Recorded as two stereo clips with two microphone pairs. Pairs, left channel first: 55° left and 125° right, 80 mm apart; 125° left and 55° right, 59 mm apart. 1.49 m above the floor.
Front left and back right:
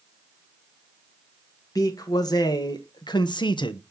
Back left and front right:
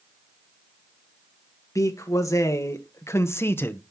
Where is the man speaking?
95° left, 2 m; by 3.8 s 65° left, 1.0 m.